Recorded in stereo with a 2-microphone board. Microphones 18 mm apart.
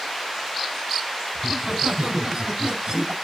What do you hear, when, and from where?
1.4 s laughter: 60° right (ahead or behind), 4.5 m; by 3.1 s 50° right (ahead or behind), 2.5 m